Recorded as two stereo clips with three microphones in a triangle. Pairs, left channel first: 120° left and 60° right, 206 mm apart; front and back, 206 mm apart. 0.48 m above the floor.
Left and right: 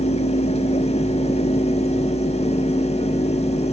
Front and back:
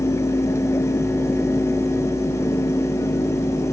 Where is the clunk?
I don't hear a clunk.